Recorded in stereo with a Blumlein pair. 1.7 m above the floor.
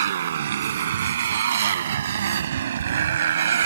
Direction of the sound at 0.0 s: 60° right.